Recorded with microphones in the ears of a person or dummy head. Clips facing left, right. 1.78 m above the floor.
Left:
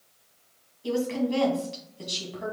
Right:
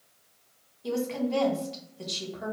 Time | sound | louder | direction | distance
0.8 | a woman speaking | left 3 dB | 5° left (ahead or behind) | 2.5 m